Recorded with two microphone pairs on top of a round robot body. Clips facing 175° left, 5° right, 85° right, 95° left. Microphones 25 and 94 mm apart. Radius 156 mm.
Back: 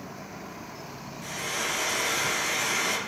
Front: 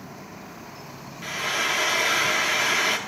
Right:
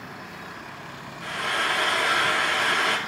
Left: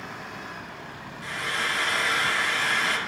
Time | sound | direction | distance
1.2 | frying | 65° right | 0.8 m